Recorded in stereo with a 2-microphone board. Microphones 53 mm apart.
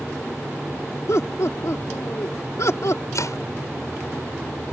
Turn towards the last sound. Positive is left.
turn(degrees=75)  # may be behind; listen again after turning